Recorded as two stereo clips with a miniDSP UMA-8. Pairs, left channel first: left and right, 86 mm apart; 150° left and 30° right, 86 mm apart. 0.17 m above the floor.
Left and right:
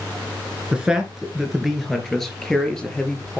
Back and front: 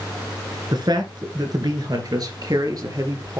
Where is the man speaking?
10° right, 2.5 m; by 3.4 s 10° left, 3.5 m.